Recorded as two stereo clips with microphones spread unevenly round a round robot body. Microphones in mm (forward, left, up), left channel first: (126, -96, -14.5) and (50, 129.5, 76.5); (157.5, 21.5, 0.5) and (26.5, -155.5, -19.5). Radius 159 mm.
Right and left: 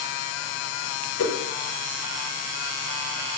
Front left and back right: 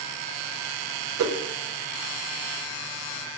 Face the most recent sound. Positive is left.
turn(degrees=-115)